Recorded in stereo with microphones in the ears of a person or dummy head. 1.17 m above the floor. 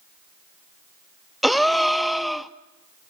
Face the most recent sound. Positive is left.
turn(degrees=0)  # may be behind; listen again after turning